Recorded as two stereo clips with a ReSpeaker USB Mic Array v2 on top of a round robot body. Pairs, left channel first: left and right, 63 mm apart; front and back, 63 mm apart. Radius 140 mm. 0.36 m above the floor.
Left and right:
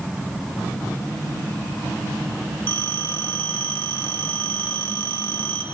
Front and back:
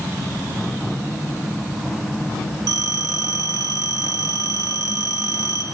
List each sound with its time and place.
2.7 s a phone ringing: 155° left, 6 m